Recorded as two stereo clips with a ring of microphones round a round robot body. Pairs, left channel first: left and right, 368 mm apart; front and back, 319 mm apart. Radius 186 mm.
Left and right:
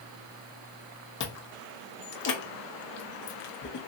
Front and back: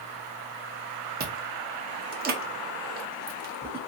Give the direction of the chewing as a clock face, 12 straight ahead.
8 o'clock.